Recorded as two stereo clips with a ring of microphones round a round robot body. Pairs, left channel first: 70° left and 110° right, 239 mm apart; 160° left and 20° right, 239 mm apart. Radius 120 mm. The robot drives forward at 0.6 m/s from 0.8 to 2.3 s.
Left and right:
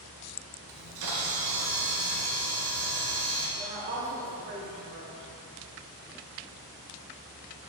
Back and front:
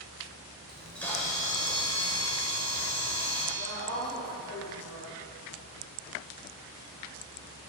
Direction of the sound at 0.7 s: 115° right.